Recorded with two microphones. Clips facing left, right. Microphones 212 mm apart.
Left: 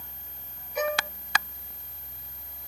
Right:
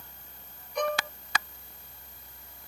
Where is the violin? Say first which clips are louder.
Left 1 dB; 5° left (ahead or behind).